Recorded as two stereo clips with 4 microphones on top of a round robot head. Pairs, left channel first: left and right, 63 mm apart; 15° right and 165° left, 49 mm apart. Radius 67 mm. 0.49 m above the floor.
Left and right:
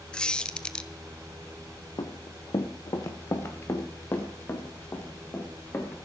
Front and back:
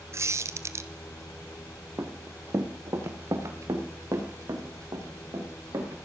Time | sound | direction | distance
0.1 | a squeak | 165° left | 1.0 m
2.0 | running footsteps | 120° left | 1.9 m